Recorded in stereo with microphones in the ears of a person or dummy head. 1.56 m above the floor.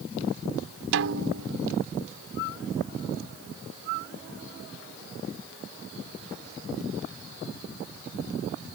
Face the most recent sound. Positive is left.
turn(degrees=-70)  # may be behind; listen again after turning